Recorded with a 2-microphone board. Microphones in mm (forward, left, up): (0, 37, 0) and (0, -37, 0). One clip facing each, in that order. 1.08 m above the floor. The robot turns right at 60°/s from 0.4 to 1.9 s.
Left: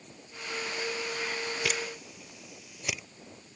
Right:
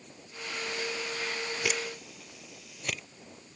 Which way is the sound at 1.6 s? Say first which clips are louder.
Even; 5° right (ahead or behind).